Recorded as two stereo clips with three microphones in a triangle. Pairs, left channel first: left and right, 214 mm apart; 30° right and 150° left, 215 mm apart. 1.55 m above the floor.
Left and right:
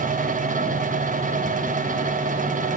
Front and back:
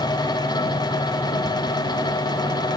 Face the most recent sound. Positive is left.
No sound to turn to.